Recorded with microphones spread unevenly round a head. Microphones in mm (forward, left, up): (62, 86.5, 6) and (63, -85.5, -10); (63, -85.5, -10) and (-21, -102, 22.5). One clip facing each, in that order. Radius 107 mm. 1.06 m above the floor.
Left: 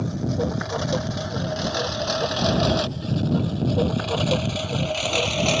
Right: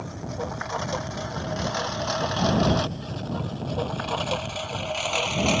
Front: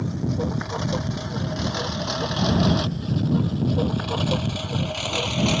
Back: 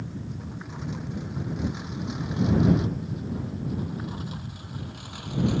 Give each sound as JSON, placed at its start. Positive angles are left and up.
{"t": 0.0, "sound": "a lawn mower", "azimuth_deg": 45}